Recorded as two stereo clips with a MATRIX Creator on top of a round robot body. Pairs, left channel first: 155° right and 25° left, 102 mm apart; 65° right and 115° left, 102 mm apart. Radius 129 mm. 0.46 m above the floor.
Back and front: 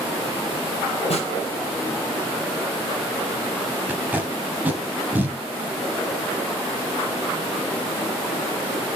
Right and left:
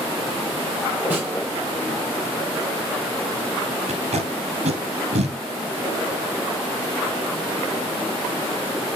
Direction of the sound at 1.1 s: 170° right.